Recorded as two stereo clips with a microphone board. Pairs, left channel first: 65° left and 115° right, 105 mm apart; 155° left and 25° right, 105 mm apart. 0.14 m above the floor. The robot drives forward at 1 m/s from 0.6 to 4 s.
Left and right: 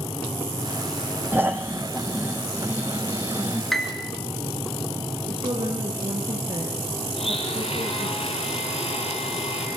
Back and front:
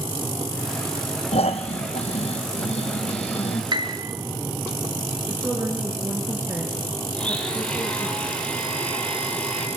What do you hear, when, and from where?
1.3 s snoring: 175° left, 1.1 m; by 3.6 s straight behind, 3.5 m
3.7 s a piano: 20° right, 1.5 m; by 4.1 s 25° right, 1.3 m
5.3 s a woman speaking: 90° right, 2.5 m
7.2 s a blender: 80° left, 5 m